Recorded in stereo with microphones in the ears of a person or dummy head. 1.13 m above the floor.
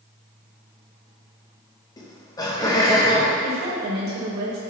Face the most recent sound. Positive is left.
turn(degrees=-60)  # may be behind; listen again after turning